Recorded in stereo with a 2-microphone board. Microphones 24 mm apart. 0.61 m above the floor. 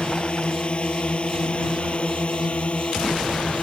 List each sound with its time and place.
0.0 s a drone: 45° left (ahead or behind); by 3.6 s 60° left (ahead or behind)